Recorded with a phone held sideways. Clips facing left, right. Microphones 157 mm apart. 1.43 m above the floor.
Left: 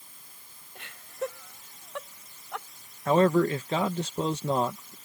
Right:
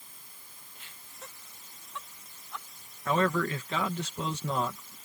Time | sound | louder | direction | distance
0.8 | laughter | left 18 dB | 80° left | ?
3.1 | a man speaking | left 6 dB | 35° left (ahead or behind) | ?